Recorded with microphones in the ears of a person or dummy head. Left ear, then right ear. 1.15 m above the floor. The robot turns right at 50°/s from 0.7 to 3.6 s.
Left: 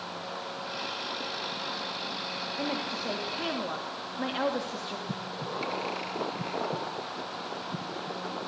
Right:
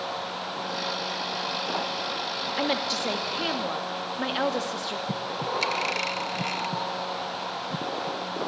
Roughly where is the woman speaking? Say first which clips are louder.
Right 8 dB; right.